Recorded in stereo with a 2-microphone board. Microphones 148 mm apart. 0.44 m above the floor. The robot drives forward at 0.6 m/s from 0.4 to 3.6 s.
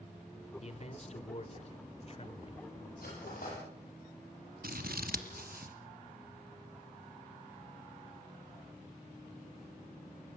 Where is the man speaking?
45° left (ahead or behind), 1.9 m; by 2.7 s 40° left (ahead or behind), 2 m.